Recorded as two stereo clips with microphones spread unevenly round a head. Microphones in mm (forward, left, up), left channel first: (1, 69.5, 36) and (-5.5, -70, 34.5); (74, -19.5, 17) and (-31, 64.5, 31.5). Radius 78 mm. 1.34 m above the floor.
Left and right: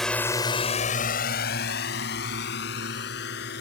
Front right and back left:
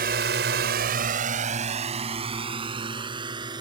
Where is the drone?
175° left; by 3.6 s 85° left.